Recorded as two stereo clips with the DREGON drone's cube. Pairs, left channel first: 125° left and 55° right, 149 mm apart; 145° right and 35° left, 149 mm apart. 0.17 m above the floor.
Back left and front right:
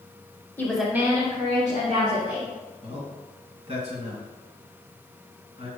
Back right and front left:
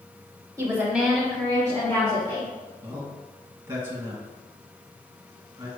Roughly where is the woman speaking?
Left.